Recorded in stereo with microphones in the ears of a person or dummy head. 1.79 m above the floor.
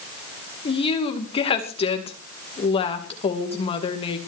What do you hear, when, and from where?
0.7 s a woman speaking: 30° left (ahead or behind), 2.5 m